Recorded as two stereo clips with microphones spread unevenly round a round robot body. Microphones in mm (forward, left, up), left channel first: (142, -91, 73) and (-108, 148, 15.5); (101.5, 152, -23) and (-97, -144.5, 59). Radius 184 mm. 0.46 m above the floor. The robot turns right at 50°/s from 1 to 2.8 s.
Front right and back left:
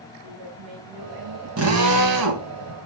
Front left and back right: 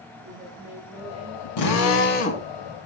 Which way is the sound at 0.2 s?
150° left.